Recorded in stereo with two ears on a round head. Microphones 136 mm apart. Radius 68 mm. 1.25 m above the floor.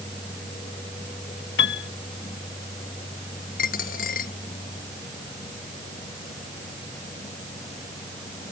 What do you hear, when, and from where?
1.6 s a piano: 85° left
3.6 s a dropped coin: 65° left (ahead or behind)